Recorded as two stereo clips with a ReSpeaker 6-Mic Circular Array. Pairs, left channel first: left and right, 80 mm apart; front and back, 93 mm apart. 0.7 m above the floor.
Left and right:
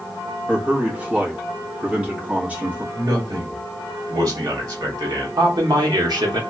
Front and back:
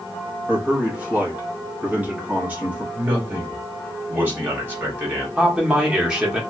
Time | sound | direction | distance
0.5 | a man speaking | 135° right | 1.0 m
2.9 | a man speaking | 115° right | 1.9 m
5.4 | a man speaking | 100° right | 1.0 m